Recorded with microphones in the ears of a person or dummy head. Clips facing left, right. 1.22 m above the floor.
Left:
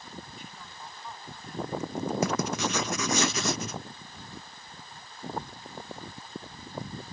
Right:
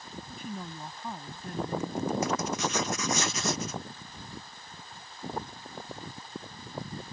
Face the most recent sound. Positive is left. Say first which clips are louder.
# left 2 dB
turn(degrees=55)  # may be behind; listen again after turning